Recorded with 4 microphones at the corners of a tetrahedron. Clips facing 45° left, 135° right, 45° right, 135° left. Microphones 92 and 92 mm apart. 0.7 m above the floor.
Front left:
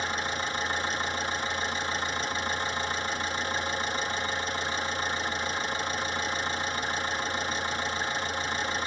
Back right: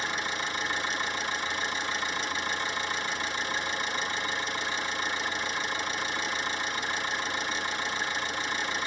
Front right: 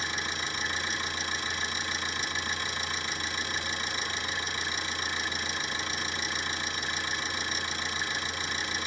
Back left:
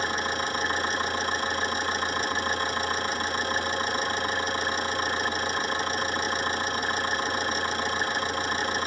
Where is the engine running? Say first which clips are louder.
Front left 1 dB, back left 7 dB; 95° left, 3 m.